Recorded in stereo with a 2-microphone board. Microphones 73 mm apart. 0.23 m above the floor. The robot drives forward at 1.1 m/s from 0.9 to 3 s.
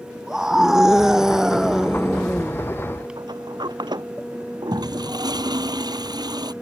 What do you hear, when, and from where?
0.3 s a scream: 5° right (ahead or behind)
3.2 s a sliding door: 85° right
4.7 s a toilet flushing: 70° right (ahead or behind)